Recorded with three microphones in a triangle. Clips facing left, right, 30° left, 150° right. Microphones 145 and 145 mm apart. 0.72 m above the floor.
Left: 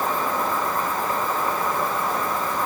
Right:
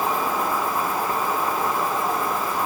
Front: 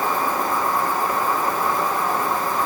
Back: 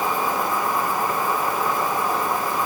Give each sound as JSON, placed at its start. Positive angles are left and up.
{"t": 0.0, "sound": "an insect", "azimuth_deg": -40, "distance_m": 3.0}